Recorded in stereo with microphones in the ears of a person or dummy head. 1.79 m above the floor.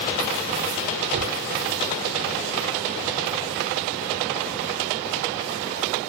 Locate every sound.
1.1 s a gunshot: 55° right (ahead or behind)